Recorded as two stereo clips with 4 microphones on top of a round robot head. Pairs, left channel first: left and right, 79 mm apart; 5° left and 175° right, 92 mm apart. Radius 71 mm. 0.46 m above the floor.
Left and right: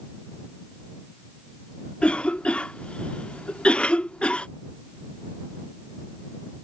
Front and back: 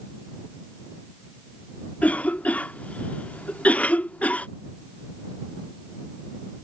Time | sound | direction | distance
2.0 | a cough | 45° left | ?